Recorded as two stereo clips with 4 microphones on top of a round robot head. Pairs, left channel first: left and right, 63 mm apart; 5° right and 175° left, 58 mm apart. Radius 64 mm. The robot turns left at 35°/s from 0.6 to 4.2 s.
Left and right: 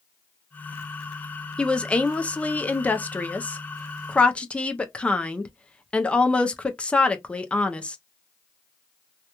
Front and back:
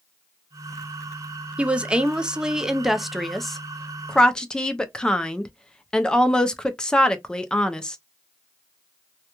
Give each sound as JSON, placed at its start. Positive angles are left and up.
{"t": 1.6, "sound": "a woman speaking", "azimuth_deg": 140, "distance_m": 0.5}